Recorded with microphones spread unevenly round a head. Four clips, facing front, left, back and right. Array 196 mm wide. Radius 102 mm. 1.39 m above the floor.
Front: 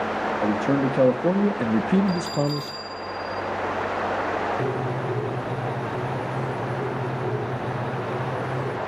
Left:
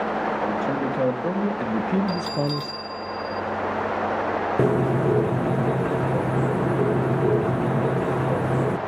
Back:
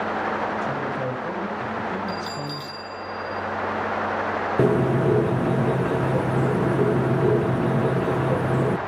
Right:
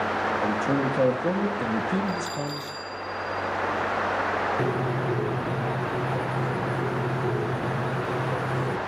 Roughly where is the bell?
Left.